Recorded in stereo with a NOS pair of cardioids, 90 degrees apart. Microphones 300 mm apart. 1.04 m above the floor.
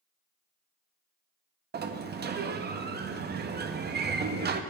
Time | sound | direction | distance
1.7 | a sliding door | 35° right | 0.7 m